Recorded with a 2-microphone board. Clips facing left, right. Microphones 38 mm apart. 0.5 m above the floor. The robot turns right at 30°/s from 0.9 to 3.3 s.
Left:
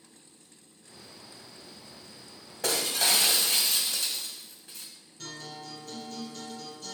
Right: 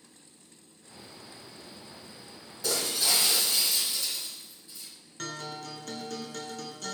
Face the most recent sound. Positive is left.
turn(degrees=-75)  # may be behind; listen again after turning